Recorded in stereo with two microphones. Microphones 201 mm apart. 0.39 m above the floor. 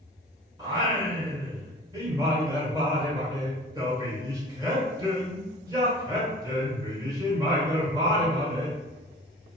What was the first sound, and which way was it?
Singing, 20° right (ahead or behind).